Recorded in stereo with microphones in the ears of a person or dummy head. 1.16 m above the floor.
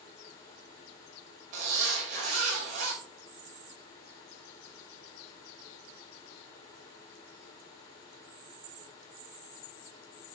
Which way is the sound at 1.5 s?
50° right (ahead or behind).